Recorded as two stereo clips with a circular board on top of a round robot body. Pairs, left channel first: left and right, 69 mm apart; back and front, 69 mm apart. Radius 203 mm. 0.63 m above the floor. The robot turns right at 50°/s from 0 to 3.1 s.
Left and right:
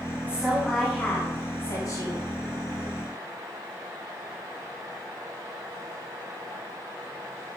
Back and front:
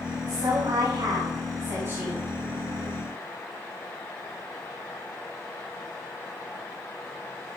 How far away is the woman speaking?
About 8.5 m.